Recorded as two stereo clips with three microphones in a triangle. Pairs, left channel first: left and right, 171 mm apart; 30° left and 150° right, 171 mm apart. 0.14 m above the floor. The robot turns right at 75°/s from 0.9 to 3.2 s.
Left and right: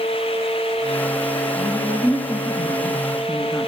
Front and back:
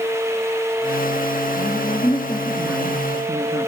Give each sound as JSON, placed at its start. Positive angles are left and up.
{"t": 1.6, "sound": "a woman speaking", "azimuth_deg": 30, "distance_m": 2.0}